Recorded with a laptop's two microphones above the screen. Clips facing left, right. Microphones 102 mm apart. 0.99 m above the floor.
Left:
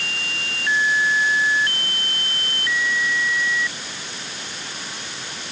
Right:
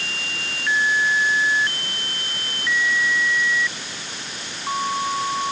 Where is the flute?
No flute in this recording.